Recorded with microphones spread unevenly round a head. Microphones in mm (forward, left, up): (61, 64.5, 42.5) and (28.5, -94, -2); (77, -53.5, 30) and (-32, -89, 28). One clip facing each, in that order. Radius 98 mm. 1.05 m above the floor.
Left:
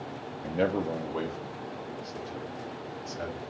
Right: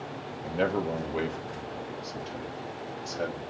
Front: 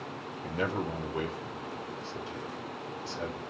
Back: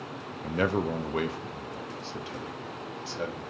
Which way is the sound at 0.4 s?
160° left.